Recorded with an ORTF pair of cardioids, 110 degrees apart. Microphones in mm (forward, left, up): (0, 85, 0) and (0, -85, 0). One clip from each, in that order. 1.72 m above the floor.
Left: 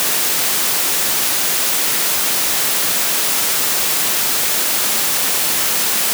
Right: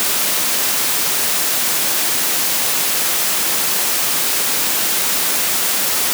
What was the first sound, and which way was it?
Only background noise.